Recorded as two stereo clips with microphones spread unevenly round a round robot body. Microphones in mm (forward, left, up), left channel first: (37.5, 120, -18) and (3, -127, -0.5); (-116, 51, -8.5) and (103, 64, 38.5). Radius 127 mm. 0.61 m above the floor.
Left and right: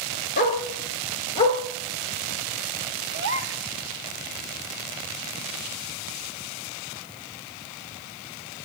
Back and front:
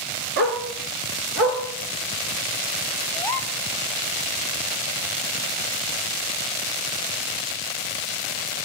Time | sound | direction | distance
0.4 | a dog barking | 30° left | 2.5 m
3.1 | a gasp | 115° right | 0.9 m